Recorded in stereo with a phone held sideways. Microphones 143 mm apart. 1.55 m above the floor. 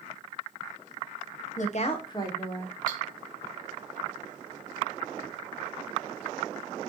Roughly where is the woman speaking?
Left.